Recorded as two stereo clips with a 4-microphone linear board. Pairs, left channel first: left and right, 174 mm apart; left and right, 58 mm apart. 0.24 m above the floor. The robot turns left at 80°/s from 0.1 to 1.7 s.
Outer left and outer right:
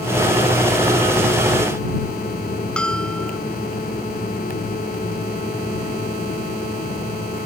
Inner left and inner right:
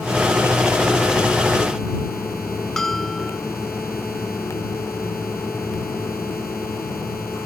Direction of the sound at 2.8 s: 5° left (ahead or behind).